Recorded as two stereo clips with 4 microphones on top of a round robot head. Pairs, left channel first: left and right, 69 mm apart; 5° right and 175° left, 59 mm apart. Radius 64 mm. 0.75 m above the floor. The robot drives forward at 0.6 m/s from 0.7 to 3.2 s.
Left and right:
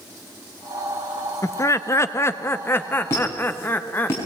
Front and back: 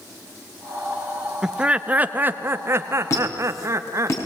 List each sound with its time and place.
1.4 s laughter: 100° left, 1.2 m; by 4.1 s 145° left, 1.7 m
3.1 s a squeak: 30° left, 5.5 m